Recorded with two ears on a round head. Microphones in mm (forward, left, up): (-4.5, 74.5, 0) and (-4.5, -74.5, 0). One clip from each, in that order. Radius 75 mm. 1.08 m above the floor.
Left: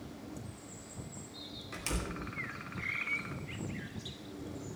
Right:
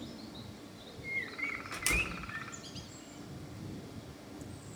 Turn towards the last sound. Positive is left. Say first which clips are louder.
# right 5 dB
turn(degrees=-30)  # may be behind; listen again after turning